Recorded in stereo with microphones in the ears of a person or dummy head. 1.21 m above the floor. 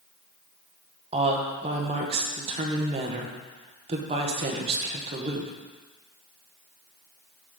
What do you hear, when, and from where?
1.1 s a woman speaking: 25° right (ahead or behind), 0.9 m